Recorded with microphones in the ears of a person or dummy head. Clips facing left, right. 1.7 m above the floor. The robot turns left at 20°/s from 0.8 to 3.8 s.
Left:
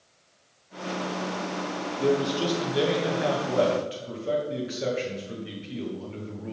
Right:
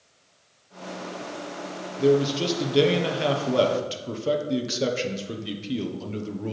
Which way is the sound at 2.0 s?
15° right.